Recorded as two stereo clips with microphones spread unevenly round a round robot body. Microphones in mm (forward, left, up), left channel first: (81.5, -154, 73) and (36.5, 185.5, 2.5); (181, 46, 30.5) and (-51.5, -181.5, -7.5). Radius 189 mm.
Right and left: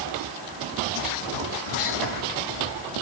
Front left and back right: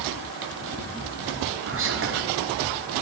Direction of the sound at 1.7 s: 90° right.